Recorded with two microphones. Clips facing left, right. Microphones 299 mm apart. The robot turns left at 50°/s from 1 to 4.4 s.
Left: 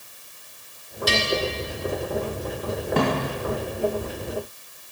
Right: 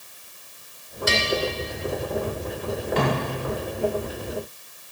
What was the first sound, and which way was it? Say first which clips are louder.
A bell: left 1 dB; 40° left (ahead or behind).